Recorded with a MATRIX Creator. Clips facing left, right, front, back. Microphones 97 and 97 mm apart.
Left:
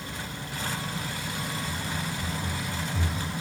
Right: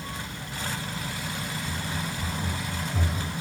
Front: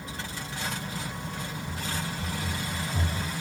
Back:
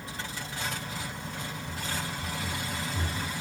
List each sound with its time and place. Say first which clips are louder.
1.6 s running footsteps: even, front 1 dB; 70° right, 2.5 m; by 3.3 s 50° right, 3 m